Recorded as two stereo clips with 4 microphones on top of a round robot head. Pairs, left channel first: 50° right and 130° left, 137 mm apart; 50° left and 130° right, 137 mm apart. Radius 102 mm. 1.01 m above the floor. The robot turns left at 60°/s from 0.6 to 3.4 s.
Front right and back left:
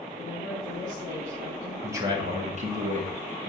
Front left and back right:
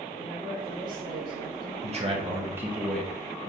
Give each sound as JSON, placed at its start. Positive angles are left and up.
{"t": 0.2, "sound": "a woman speaking", "azimuth_deg": -50, "distance_m": 3.0}
{"t": 1.8, "sound": "a man speaking", "azimuth_deg": -160, "distance_m": 1.8}